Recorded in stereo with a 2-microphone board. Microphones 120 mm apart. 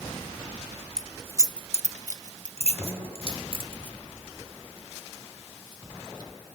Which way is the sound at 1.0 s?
5° right (ahead or behind).